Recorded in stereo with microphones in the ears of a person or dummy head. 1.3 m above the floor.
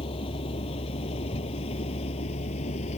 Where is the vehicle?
30° left (ahead or behind); by 3.0 s 40° left (ahead or behind).